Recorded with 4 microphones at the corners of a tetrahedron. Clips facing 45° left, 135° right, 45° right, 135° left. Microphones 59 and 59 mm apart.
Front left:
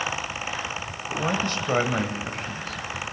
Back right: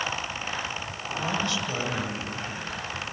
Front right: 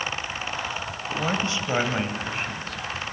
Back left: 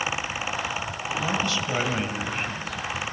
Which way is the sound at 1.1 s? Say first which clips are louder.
Front left 3 dB, even; straight ahead.